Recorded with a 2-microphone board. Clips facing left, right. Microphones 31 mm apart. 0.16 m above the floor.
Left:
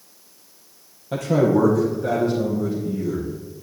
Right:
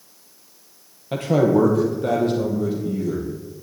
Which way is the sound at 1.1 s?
40° right (ahead or behind).